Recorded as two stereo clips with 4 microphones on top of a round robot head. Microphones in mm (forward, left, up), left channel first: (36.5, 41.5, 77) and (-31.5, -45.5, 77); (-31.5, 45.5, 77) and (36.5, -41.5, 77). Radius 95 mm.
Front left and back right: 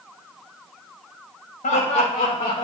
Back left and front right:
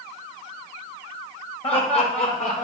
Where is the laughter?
85° left, 1.9 m; by 2.6 s 105° left, 2 m.